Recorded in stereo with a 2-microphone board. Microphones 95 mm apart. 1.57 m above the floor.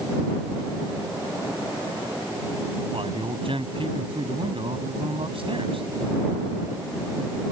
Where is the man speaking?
70° right (ahead or behind).